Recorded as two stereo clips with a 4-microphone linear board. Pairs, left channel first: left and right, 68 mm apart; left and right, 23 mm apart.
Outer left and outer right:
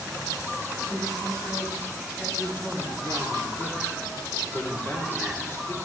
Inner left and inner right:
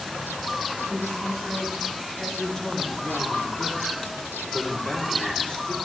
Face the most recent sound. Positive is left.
turn(degrees=35)  # may be behind; listen again after turning